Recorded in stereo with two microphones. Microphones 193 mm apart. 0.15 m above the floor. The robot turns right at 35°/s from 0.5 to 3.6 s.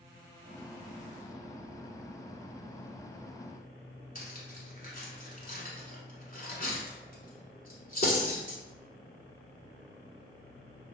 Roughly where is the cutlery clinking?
Left.